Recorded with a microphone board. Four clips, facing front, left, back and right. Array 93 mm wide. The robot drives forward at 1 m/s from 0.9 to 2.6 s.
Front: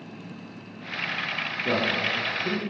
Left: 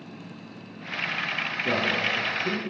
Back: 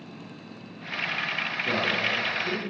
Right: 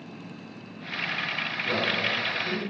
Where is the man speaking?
30° left, 5.5 m; by 2.6 s 35° left, 4.5 m.